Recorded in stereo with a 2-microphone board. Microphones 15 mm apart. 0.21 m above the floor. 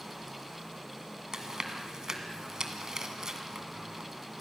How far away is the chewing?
About 2 m.